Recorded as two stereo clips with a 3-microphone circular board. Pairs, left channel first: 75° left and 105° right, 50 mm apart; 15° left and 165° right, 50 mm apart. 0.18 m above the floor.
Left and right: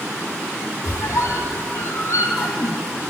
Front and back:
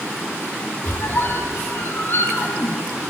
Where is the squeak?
55° left, 1.1 m.